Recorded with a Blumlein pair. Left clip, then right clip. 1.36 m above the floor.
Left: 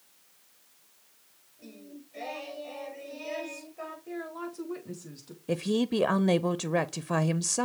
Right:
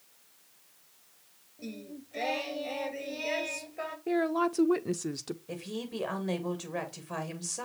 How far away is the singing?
About 1.8 m.